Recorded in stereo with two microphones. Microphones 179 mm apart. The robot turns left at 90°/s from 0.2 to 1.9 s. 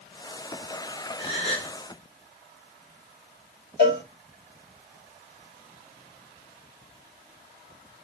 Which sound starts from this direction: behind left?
A gasp, at 1.2 s.